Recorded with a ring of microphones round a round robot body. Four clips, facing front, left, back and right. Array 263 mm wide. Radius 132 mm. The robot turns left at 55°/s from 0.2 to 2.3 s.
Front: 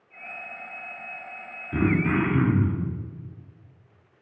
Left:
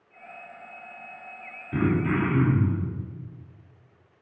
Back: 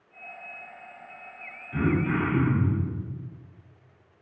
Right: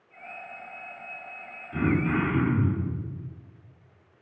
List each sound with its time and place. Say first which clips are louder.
1.7 s throat clearing: left 1 dB, front 2 dB; 45° left, 1.1 m; by 2.9 s 15° left, 1.1 m